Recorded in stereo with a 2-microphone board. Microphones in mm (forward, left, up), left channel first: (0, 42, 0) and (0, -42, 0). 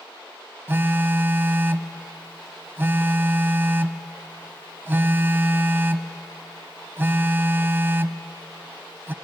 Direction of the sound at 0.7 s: 25° right (ahead or behind).